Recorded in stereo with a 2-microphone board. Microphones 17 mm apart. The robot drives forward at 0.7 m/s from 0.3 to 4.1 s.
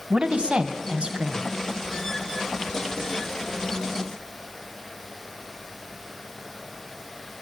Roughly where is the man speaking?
Right.